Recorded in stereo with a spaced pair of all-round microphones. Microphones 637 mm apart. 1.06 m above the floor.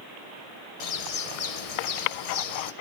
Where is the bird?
65° left (ahead or behind), 0.7 m.